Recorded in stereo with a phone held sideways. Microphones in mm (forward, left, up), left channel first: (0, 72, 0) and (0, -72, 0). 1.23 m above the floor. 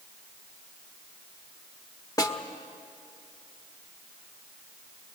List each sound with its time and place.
2.2 s a snare drum: 25° left (ahead or behind), 1.2 m